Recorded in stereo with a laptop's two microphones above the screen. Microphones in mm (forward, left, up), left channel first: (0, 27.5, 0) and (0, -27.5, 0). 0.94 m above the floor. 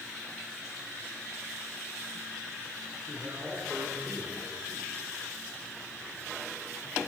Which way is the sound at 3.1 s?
35° right (ahead or behind).